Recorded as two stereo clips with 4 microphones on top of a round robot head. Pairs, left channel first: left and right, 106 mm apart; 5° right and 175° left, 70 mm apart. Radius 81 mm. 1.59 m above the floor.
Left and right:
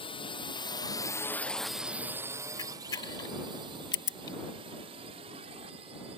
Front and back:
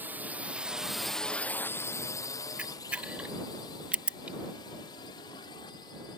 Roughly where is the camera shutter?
Behind left.